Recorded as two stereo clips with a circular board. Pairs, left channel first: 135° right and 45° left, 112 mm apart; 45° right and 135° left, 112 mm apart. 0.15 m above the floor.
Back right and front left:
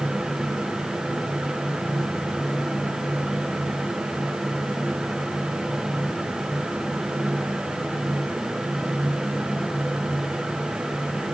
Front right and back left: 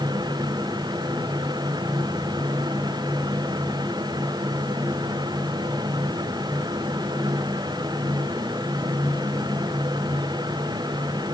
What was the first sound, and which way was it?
Only background noise.